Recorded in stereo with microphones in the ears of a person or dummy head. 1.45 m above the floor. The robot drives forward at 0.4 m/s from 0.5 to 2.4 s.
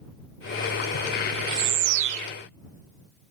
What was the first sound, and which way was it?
A bird, 80° right.